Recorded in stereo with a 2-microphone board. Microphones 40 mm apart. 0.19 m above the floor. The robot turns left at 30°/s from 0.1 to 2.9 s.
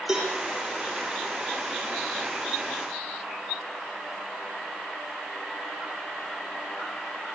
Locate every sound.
0.1 s a cowbell: 10° right (ahead or behind), 7.5 m; by 0.3 s 15° right (ahead or behind), 7.5 m